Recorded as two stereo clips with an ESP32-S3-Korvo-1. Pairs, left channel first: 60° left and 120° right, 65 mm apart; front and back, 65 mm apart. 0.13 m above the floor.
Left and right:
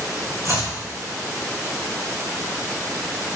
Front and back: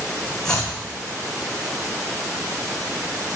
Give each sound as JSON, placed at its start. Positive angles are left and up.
{"t": 0.5, "sound": "chopping", "azimuth_deg": -80, "distance_m": 4.0}